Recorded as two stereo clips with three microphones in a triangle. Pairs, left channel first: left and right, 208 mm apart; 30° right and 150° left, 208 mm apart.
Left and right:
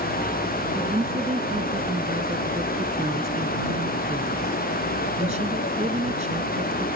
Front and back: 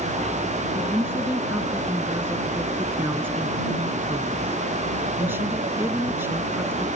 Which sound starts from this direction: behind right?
A woman speaking, at 0.8 s.